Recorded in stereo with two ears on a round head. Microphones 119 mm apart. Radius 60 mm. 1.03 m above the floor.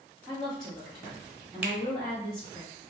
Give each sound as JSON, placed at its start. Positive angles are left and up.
{"t": 0.3, "sound": "a woman speaking", "side_deg": 5, "distance_m": 1.7}
{"t": 1.6, "sound": "a finger snap", "side_deg": -10, "distance_m": 0.6}